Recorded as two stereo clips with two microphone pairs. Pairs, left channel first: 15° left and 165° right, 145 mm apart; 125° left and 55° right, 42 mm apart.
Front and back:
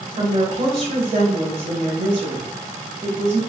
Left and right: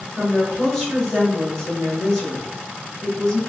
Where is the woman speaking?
Straight behind, 1.2 m.